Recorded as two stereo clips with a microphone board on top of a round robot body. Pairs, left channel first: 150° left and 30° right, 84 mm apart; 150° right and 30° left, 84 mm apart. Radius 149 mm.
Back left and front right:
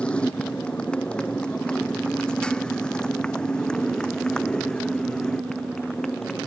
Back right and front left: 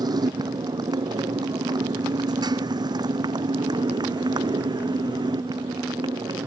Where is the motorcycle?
70° left.